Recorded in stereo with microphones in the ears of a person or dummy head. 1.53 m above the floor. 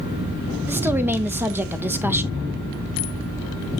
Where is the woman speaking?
10° right (ahead or behind), 1.2 m.